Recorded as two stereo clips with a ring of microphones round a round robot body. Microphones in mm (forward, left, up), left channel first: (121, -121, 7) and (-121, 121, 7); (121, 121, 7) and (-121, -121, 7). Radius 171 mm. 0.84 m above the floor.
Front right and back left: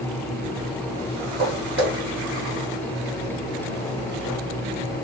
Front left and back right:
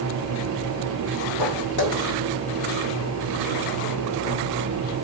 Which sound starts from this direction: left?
Footsteps, at 1.4 s.